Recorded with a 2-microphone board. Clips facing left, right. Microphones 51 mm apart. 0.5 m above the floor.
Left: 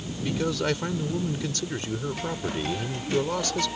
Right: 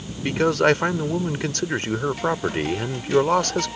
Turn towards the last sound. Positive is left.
turn(degrees=-55)  # may be behind; listen again after turning